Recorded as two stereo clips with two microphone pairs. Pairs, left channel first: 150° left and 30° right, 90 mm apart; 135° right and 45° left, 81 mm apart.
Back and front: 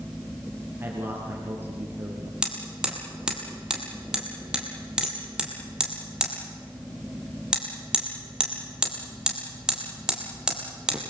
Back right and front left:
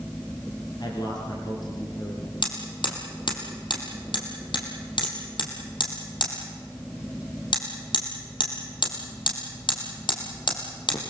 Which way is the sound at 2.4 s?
115° right.